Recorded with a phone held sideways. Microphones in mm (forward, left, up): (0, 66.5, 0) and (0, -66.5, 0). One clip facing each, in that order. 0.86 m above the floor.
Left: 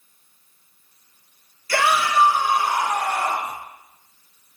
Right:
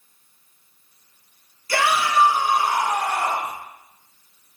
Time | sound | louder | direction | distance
1.7 | a shout | left 1 dB | 20° right (ahead or behind) | 2.5 m